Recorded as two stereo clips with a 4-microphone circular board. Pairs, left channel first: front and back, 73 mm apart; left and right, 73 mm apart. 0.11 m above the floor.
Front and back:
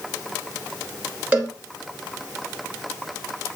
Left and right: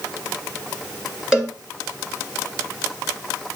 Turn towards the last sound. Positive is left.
turn(degrees=-150)